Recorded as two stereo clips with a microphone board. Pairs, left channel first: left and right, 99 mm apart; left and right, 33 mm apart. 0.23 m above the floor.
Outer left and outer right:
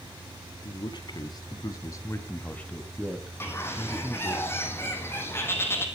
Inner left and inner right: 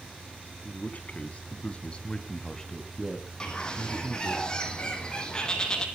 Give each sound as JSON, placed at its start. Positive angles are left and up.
{"t": 0.7, "sound": "a man speaking", "side_deg": 50, "distance_m": 2.0}
{"t": 3.4, "sound": "a bird", "side_deg": 25, "distance_m": 1.9}